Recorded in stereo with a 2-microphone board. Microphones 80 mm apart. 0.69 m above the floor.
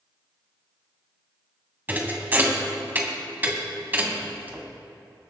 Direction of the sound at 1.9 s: 25° right (ahead or behind).